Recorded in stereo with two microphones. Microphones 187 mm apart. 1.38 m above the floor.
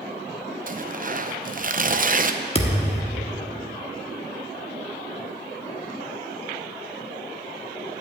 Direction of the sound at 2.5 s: 35° left (ahead or behind).